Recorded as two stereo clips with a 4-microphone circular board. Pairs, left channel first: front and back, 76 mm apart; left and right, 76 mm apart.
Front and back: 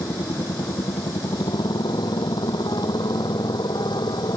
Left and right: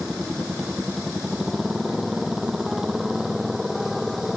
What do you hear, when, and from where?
0.0 s a motorcycle: 10° right; by 4.4 s 5° right